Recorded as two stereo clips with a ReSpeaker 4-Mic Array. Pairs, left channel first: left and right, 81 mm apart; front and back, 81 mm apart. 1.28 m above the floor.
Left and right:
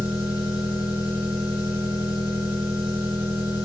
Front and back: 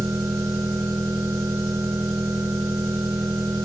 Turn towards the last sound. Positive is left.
turn(degrees=-110)